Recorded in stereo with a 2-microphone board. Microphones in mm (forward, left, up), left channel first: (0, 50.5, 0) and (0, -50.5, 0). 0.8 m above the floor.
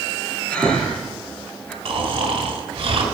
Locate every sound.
0.5 s breathing: 15° left (ahead or behind), 3 m
1.9 s snoring: 85° right, 3 m